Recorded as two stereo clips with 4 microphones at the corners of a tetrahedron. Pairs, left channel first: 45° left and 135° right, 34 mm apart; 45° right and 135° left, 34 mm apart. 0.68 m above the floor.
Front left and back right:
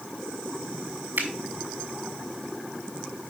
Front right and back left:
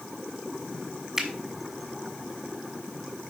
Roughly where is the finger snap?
Behind right.